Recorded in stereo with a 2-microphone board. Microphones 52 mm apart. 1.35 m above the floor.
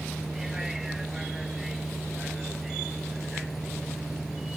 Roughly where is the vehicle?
Centre.